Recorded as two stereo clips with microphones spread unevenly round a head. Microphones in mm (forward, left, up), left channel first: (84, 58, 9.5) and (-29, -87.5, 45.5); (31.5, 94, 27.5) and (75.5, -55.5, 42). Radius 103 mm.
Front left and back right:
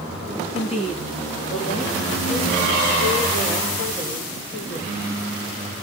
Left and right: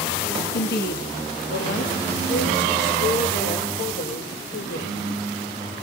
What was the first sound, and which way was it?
A woman speaking, 110° left.